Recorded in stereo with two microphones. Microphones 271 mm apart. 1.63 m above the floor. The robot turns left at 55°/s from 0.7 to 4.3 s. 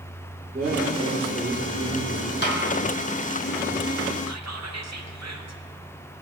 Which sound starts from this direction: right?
Whispering, at 4.3 s.